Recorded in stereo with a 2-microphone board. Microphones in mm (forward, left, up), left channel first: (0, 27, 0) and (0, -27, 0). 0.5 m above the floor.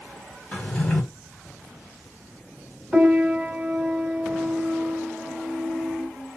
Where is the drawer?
20° left (ahead or behind), 1.7 m.